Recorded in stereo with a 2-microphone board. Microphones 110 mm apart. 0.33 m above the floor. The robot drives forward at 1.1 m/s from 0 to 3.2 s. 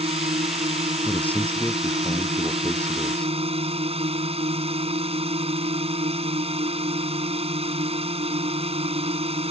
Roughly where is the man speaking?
Centre.